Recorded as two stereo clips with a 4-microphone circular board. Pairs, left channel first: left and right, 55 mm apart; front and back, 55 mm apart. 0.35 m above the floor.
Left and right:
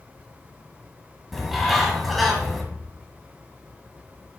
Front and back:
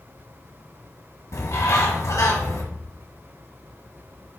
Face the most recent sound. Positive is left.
turn(degrees=0)